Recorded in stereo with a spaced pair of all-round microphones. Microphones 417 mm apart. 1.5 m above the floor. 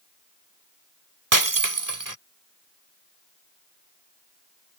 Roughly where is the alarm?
I don't hear an alarm.